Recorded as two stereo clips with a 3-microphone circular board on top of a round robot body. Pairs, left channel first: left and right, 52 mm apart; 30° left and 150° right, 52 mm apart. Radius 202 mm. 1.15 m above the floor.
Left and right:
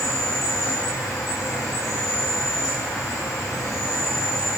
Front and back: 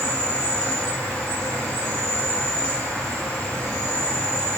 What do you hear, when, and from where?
0.0 s an insect: 100° left, 0.7 m